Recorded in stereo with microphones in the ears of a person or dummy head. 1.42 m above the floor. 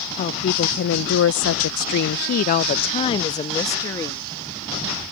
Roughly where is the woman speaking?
Left.